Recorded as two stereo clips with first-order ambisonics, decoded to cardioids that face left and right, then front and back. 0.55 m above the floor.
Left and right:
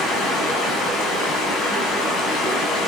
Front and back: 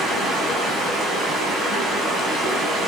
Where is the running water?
125° left, 4.5 m.